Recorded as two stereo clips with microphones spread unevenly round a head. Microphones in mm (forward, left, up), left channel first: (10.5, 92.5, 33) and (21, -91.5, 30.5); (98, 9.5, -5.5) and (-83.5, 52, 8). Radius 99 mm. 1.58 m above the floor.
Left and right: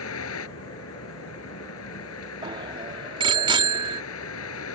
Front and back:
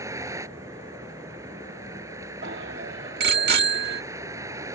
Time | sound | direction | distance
0.0 | a vehicle | 95° left | ?
2.4 | a bicycle bell | 155° right | ?